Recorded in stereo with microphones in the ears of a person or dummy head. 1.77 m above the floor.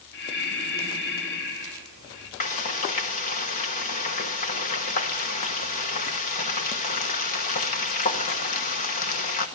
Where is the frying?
35° left (ahead or behind), 1.3 m.